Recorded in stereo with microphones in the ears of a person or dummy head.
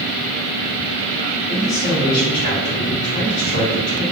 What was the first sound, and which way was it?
A man speaking, 10° left (ahead or behind).